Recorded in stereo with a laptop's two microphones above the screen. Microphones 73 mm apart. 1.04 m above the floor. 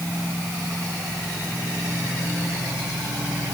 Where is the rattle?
No rattle in this recording.